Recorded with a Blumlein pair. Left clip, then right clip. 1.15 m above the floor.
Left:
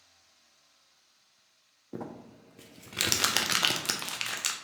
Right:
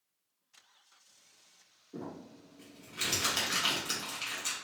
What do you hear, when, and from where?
1.9 s crumpling: 50° left, 0.6 m